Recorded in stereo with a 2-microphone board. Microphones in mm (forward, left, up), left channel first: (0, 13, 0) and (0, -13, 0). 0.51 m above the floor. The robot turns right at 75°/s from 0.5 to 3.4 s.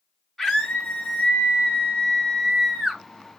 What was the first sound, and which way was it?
A scream, 5° left.